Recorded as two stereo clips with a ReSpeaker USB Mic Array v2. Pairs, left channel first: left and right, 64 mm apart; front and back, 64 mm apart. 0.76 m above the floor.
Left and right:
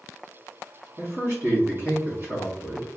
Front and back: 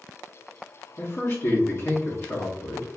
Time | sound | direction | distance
1.0 | a man speaking | 45° right | 1.7 m